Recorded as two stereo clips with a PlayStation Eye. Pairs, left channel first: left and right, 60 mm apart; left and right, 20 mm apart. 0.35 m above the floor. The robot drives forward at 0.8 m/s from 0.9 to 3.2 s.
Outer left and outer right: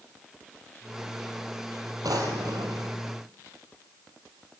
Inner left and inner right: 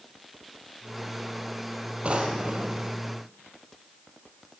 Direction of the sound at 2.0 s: 80° right.